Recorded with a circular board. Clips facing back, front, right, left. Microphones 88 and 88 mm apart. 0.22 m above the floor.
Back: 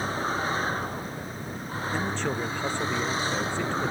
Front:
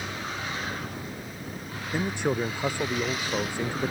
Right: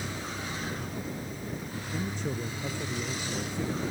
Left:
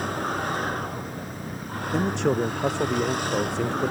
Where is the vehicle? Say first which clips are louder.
Back 6 dB, left 9 dB; 125° left; by 3.9 s 120° left.